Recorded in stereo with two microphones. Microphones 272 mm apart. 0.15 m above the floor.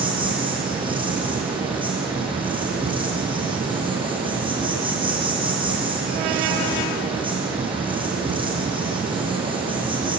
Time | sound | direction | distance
0.0 | an insect | 20° right (ahead or behind) | 5 m